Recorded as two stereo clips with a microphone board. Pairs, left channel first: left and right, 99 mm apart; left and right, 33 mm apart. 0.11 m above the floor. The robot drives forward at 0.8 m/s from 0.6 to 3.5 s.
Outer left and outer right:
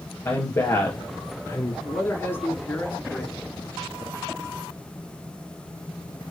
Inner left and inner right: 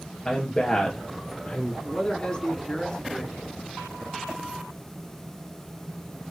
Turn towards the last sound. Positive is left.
turn(degrees=20)  # may be behind; listen again after turning